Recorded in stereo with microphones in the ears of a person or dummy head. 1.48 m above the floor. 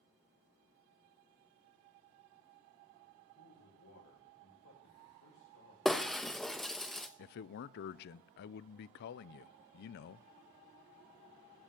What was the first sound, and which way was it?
A man speaking, 85° left.